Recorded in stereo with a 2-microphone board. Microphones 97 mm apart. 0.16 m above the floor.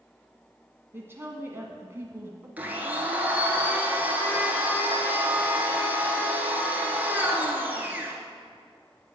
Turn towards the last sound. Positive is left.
turn(degrees=-15)  # may be behind; listen again after turning